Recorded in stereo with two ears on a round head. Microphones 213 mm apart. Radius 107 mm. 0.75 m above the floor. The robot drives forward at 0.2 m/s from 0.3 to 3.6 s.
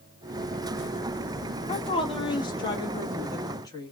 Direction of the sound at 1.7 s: 20° left (ahead or behind).